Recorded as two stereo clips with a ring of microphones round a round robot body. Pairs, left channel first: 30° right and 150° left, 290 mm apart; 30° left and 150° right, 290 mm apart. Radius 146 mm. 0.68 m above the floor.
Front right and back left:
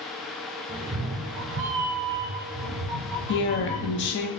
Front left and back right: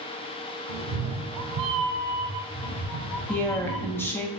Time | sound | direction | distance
0.7 | a cat meowing | 135° right | 0.9 m
3.3 | a woman speaking | 50° right | 0.7 m